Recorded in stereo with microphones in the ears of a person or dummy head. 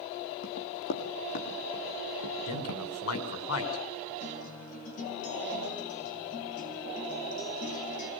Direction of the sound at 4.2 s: 45° left (ahead or behind).